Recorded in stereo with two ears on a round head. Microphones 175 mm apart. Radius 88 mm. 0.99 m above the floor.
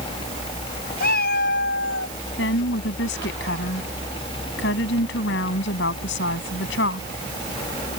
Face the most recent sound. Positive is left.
turn(degrees=60)  # may be behind; listen again after turning